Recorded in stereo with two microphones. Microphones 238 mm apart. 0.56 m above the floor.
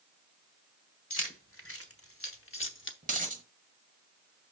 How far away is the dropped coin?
About 1.2 m.